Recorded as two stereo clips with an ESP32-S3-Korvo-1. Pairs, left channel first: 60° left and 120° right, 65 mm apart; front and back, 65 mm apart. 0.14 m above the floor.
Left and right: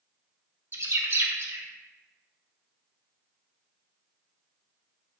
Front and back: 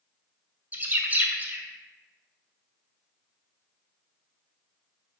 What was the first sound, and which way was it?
A bird, 135° right.